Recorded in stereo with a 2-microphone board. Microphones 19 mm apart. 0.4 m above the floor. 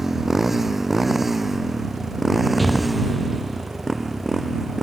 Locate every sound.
0.0 s a motorcycle: 15° right (ahead or behind); by 4.8 s centre (ahead or behind)
2.6 s an explosion: 5° left (ahead or behind)